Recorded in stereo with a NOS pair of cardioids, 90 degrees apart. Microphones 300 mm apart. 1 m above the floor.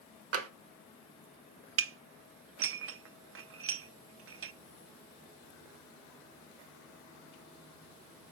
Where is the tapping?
50° right, 1.1 m.